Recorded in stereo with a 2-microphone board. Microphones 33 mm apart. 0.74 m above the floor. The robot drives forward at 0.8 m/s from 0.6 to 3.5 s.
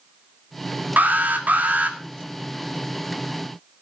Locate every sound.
1.0 s an alarm: 60° right (ahead or behind), 2 m; by 2.0 s 50° right (ahead or behind), 2 m